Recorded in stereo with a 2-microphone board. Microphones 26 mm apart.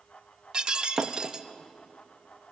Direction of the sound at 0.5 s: 25° right (ahead or behind).